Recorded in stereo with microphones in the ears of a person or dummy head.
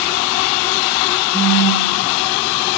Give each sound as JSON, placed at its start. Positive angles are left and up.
{"t": 1.3, "sound": "a phone buzzing", "side_deg": -5, "distance_m": 6.5}